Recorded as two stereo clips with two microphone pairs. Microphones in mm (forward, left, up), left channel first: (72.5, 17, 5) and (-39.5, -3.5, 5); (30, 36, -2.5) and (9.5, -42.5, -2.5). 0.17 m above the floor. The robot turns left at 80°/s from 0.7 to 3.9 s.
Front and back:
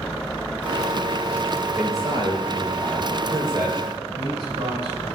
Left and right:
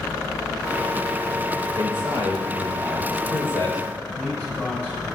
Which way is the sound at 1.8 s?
90° right.